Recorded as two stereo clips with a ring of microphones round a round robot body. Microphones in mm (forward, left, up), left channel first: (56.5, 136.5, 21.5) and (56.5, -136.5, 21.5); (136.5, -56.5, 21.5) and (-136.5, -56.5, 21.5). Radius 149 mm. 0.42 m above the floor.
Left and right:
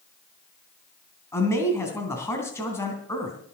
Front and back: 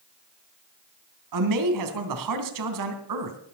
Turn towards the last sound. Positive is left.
turn(degrees=170)